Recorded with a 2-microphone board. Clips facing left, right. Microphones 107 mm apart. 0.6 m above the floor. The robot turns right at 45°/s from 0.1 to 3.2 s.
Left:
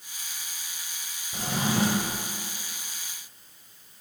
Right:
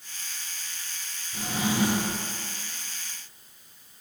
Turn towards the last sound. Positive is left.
turn(degrees=145)